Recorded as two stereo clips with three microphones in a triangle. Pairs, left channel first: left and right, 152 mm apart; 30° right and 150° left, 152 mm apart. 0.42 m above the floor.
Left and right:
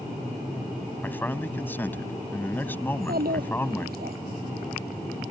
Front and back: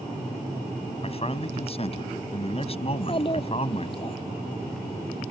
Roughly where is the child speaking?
Right.